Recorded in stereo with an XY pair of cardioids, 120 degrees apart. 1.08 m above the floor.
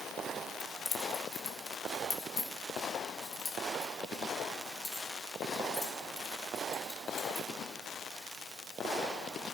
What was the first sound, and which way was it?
Keys jangling, 65° left.